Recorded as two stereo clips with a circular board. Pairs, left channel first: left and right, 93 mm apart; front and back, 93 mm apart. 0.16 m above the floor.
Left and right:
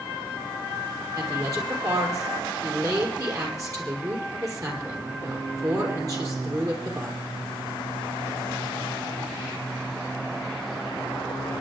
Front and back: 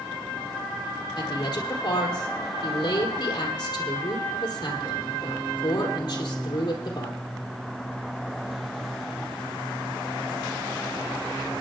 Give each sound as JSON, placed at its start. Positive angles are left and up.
{"t": 1.2, "sound": "a woman speaking", "azimuth_deg": -40, "distance_m": 4.5}